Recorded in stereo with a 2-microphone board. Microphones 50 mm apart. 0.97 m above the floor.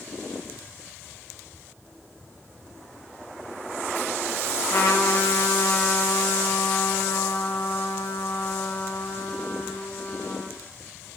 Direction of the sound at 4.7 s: 80° left.